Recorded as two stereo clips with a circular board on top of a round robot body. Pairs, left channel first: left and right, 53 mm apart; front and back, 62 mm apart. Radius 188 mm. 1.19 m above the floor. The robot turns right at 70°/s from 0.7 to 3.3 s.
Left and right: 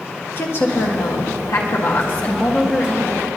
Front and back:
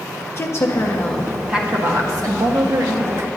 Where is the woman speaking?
50° left, 1.6 m; by 3.3 s 130° right, 1.6 m.